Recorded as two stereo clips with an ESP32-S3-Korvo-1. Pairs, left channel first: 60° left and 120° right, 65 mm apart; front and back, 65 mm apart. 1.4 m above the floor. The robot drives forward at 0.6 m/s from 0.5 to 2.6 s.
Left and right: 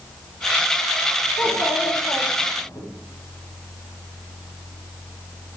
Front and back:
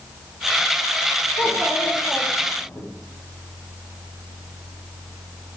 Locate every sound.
1.4 s a child speaking: 50° left, 2.5 m; by 2.8 s 65° left, 2.5 m